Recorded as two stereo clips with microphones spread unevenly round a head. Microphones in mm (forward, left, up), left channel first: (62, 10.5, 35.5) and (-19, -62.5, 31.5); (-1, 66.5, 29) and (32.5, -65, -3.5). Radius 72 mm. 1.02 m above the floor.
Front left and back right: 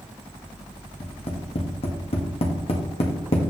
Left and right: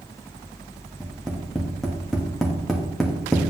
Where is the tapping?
15° left, 1.6 m.